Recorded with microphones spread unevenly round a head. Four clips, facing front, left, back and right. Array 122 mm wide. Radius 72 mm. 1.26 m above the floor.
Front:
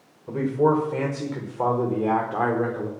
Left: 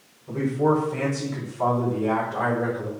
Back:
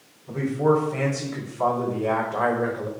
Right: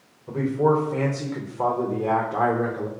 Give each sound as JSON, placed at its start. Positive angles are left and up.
{"t": 0.3, "sound": "a man speaking", "azimuth_deg": -30, "distance_m": 5.0}